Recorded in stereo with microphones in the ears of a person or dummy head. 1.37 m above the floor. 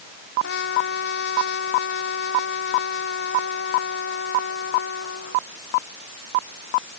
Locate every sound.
0.4 s a trumpet: 70° left (ahead or behind)